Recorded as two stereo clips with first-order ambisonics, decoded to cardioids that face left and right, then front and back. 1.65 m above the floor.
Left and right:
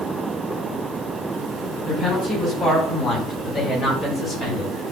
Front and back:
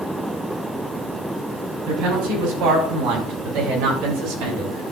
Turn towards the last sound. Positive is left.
turn(degrees=180)